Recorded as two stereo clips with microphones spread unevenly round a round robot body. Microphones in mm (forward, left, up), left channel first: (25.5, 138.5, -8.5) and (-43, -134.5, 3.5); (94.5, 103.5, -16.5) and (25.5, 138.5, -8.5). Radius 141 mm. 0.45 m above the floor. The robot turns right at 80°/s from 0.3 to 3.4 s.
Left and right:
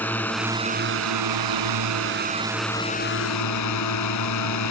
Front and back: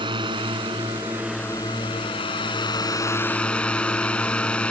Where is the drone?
160° left; by 4.7 s 50° left.